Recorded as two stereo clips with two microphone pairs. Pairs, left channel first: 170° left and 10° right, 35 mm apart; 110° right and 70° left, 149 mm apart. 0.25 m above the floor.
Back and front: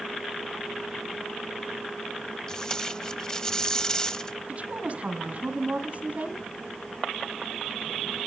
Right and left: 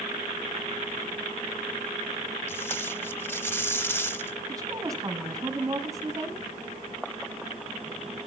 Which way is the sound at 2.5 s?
160° right.